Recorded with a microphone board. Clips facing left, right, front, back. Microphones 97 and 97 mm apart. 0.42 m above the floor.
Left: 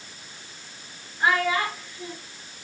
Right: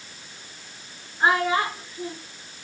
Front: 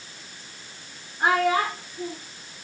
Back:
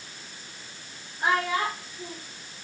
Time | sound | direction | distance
1.2 | a child speaking | 40° right | 3 m